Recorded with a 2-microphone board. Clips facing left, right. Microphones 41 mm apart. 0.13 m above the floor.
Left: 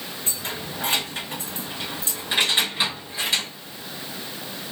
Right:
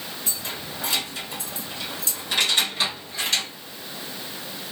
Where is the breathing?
No breathing in this recording.